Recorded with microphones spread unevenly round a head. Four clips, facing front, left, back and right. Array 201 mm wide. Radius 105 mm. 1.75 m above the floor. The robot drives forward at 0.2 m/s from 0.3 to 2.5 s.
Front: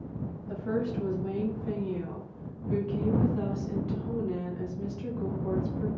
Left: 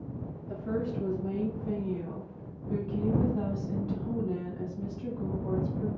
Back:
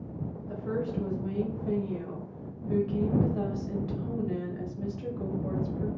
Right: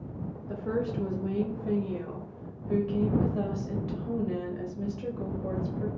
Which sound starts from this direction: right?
A woman speaking, at 0.5 s.